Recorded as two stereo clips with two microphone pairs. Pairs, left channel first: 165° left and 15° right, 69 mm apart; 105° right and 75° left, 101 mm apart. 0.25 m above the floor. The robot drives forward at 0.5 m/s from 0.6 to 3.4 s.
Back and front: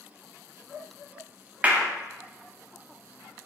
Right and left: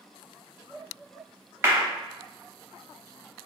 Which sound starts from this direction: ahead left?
A clap, at 1.6 s.